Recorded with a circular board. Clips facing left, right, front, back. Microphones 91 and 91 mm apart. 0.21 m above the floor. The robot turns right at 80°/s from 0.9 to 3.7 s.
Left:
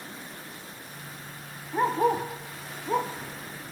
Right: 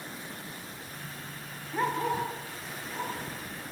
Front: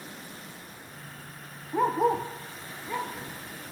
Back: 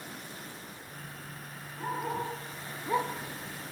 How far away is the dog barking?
About 2.5 m.